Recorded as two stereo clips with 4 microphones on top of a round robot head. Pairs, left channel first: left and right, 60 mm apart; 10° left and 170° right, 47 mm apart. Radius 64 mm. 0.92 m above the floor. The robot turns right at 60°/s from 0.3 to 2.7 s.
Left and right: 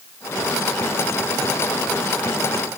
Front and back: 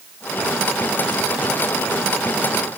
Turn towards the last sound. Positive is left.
No sound to turn to.